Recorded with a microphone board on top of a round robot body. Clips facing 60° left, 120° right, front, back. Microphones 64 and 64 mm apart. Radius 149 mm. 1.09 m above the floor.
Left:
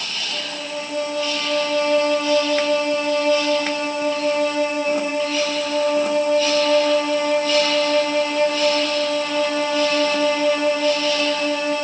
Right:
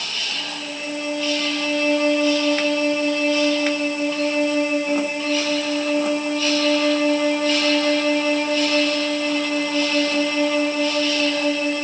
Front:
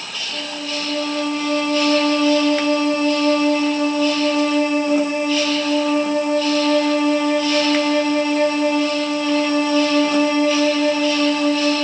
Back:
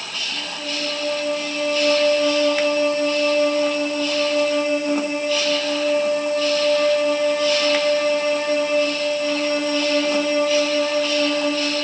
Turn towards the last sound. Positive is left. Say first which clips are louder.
# left 2 dB, front 4 dB
turn(degrees=35)